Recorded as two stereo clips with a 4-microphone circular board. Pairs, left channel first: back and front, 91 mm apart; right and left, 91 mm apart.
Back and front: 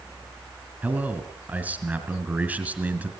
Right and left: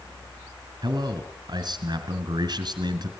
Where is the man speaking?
70° left, 3 m.